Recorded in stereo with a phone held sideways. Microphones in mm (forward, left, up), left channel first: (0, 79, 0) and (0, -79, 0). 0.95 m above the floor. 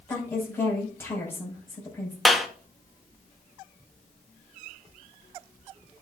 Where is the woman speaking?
15° left (ahead or behind), 5.5 m.